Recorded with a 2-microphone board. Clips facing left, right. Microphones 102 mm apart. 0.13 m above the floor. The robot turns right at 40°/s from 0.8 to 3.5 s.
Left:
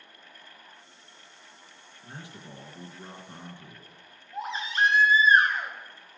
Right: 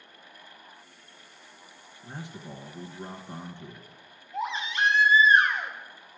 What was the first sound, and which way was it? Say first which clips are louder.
A man speaking: right 4 dB; 15° right (ahead or behind).